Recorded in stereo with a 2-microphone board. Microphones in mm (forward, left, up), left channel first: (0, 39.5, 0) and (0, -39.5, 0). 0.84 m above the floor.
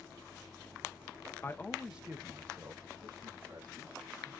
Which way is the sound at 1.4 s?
30° left (ahead or behind).